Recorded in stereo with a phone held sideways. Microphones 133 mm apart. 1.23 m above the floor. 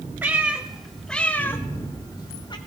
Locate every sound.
0.2 s a cat meowing: 15° right (ahead or behind), 1.2 m; by 2.6 s 35° left (ahead or behind), 1.2 m